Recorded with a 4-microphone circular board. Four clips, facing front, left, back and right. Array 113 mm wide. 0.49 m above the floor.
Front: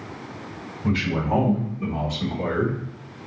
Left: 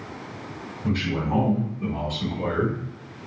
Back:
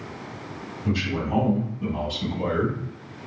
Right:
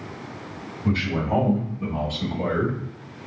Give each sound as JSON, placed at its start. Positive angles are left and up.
{"t": 0.8, "sound": "a man speaking", "azimuth_deg": 0, "distance_m": 1.9}